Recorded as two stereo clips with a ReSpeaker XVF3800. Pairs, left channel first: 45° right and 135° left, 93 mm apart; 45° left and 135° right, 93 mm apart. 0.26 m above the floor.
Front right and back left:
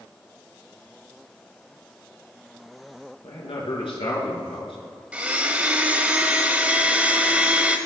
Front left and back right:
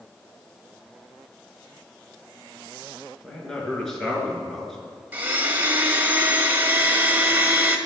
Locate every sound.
3.2 s a man speaking: 40° right, 3.5 m
5.1 s a blender: 170° right, 1.1 m